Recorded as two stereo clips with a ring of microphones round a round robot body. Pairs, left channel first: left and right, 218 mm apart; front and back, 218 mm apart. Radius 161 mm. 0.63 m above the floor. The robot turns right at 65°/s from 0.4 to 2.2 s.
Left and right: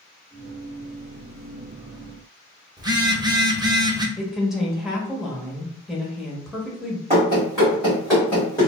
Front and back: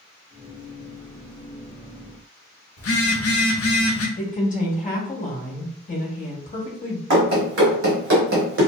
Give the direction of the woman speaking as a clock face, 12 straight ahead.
12 o'clock.